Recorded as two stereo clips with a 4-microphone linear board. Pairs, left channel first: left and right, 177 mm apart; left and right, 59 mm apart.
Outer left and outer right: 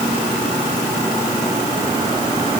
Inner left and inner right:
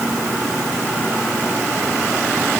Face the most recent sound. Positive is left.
No sound to turn to.